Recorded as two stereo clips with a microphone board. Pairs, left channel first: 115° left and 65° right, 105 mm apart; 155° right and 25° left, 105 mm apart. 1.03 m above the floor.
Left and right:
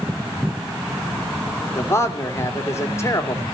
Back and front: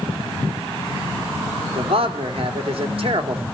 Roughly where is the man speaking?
Ahead left.